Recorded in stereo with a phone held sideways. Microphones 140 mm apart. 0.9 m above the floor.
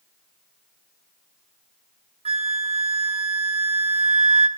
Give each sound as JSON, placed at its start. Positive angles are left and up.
{"t": 2.2, "sound": "a flute", "side_deg": -45, "distance_m": 0.9}